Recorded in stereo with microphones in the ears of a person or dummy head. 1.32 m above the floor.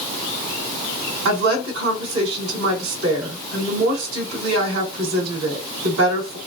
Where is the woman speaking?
75° right (ahead or behind), 2.5 m.